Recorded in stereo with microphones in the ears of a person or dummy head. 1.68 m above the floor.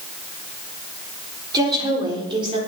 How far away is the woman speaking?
About 4 m.